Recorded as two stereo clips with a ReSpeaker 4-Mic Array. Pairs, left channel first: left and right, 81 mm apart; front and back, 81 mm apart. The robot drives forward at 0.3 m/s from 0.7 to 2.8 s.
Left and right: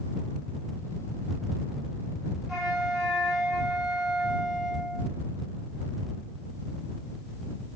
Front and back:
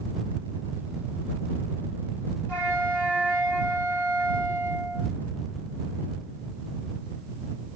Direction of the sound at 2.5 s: 175° right.